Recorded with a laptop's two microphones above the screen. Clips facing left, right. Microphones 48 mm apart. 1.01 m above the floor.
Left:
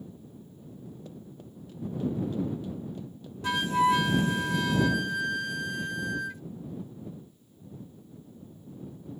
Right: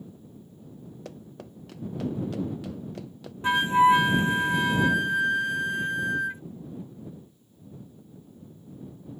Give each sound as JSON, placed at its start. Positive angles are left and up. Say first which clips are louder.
{"t": 1.1, "sound": "running footsteps", "louder": "right 2 dB", "side_deg": -70}
{"t": 3.4, "sound": "a flute", "louder": "right 5 dB", "side_deg": -25}